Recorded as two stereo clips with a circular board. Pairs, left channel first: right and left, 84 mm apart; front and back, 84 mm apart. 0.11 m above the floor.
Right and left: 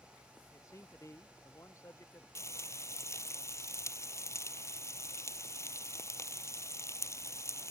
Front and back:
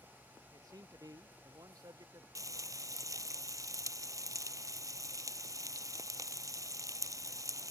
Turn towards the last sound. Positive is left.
turn(degrees=-140)